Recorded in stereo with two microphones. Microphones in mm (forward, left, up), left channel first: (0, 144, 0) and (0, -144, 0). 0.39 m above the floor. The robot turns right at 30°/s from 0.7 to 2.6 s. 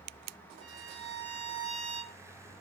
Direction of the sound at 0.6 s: 105° right.